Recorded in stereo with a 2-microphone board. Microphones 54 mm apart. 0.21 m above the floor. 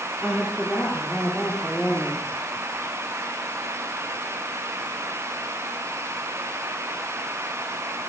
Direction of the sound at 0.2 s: 5° right (ahead or behind).